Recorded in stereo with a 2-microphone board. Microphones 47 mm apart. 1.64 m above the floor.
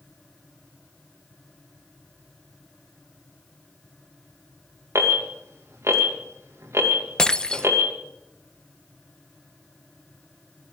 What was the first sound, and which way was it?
An alarm, 80° right.